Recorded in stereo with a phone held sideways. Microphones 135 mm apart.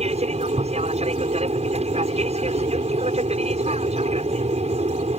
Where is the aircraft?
50° right (ahead or behind).